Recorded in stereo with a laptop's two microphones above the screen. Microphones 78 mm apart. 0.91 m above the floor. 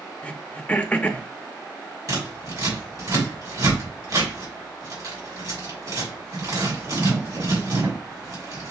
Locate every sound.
0.2 s throat clearing: 20° left (ahead or behind), 0.6 m
2.1 s scissors: 55° right (ahead or behind), 2 m